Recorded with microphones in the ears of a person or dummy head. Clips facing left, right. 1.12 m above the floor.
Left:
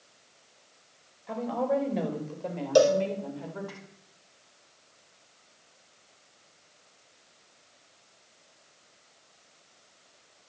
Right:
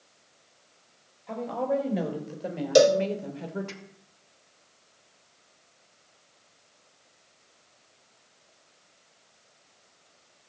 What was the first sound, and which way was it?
A woman speaking, 5° left (ahead or behind).